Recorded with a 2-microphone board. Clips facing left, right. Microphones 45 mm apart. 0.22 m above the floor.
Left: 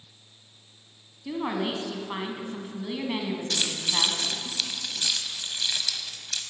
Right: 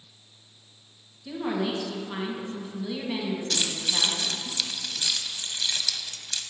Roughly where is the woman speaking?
Left.